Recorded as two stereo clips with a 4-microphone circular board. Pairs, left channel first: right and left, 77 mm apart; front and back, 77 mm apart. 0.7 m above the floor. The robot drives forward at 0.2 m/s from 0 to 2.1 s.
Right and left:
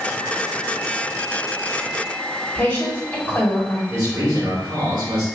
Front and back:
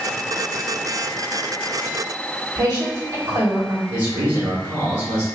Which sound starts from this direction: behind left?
A man speaking, at 3.9 s.